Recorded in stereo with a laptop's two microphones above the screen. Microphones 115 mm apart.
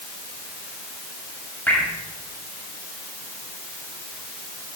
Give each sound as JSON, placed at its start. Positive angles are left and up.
{"t": 1.7, "sound": "dripping", "side_deg": 15, "distance_m": 7.0}